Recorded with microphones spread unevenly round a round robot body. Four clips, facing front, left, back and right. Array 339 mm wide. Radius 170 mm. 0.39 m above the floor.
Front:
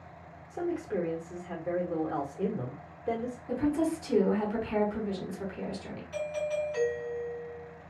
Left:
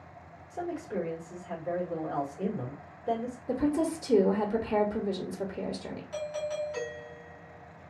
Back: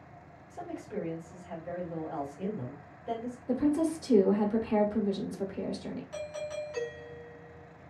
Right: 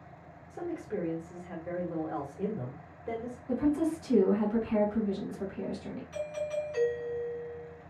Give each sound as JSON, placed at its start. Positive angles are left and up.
{"t": 0.5, "sound": "a man speaking", "azimuth_deg": -10, "distance_m": 1.5}
{"t": 3.5, "sound": "a woman speaking", "azimuth_deg": 110, "distance_m": 0.9}
{"t": 6.1, "sound": "a doorbell", "azimuth_deg": -155, "distance_m": 1.6}